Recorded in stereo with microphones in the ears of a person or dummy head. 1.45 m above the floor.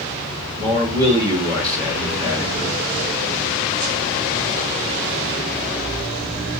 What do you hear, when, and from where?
0.6 s a man speaking: 20° right (ahead or behind), 1.1 m